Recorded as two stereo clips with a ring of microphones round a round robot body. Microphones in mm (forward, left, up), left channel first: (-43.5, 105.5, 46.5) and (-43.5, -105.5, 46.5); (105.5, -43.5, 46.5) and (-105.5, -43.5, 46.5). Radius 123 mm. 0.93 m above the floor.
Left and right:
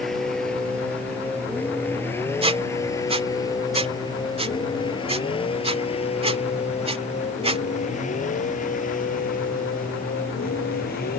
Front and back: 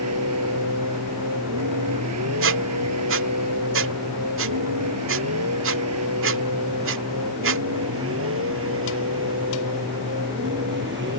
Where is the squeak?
155° right.